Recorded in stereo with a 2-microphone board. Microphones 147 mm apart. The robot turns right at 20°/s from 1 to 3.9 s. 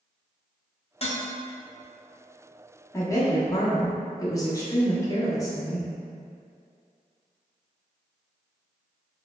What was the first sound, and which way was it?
Dishes clattering, 45° left (ahead or behind).